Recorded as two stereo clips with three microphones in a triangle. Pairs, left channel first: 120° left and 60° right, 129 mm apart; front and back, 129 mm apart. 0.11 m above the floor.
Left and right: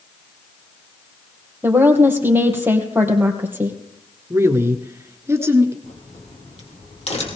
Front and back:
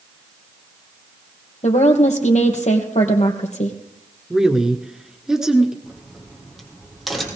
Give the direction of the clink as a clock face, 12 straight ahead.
No clink in this recording.